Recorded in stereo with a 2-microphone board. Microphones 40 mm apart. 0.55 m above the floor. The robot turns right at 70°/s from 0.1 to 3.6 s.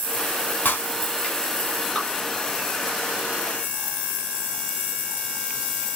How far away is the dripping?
About 3 m.